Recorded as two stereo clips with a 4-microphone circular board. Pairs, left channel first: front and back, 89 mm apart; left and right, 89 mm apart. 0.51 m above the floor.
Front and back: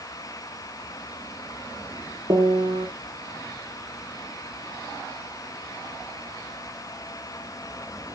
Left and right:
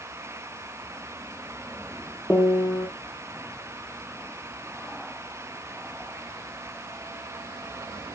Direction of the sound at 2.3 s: 155° left.